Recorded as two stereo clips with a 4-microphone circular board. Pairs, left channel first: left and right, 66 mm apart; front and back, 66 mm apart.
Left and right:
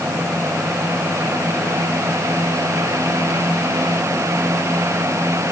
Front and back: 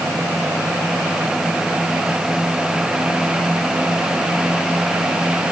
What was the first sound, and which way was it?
Only background noise.